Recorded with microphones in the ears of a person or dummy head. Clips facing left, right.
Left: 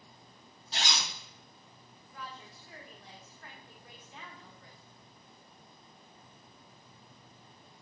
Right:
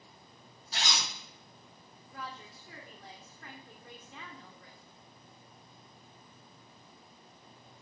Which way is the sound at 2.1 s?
60° right (ahead or behind).